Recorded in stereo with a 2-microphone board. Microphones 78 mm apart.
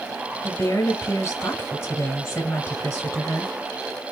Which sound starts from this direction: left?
A woman speaking, at 0.4 s.